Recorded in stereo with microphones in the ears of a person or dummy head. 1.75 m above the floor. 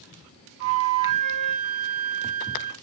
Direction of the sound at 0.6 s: 65° right (ahead or behind).